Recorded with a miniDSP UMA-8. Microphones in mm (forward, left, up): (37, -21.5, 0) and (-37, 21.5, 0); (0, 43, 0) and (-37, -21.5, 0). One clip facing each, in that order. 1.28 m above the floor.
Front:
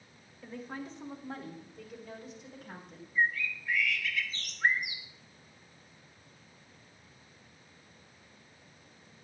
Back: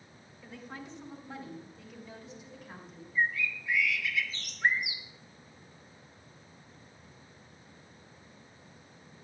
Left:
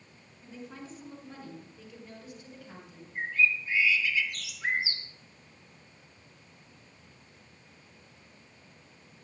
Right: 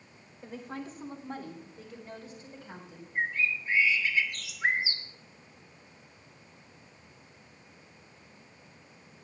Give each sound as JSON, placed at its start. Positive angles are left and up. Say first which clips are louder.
{"t": 0.4, "sound": "a woman speaking", "louder": "front 4 dB, right 4 dB", "azimuth_deg": -85, "distance_m": 2.5}
{"t": 3.1, "sound": "a bird", "louder": "even, left 2 dB", "azimuth_deg": -70, "distance_m": 2.0}